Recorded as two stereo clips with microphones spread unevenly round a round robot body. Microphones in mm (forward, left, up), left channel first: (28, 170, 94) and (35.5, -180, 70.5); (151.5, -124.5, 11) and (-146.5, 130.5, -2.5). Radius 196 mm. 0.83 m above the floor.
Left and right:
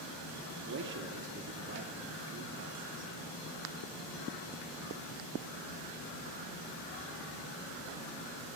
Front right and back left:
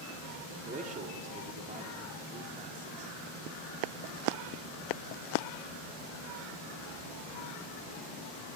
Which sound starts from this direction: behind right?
A man speaking, at 0.6 s.